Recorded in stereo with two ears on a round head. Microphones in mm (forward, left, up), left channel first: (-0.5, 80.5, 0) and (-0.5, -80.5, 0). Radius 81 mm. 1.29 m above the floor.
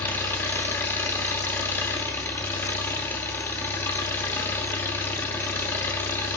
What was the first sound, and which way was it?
An engine running, 10° left (ahead or behind).